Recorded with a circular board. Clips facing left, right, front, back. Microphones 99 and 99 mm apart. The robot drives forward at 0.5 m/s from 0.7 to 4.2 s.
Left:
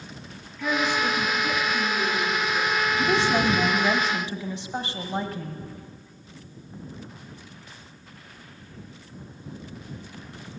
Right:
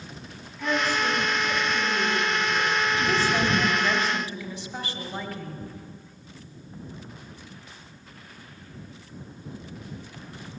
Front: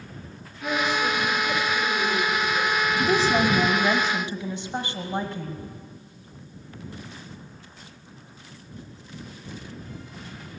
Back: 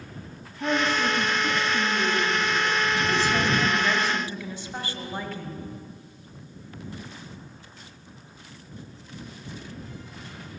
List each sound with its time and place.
0.6 s a woman speaking: 170° right, 3 m
3.0 s a woman speaking: 25° left, 1.6 m; by 5.6 s 50° left, 1.3 m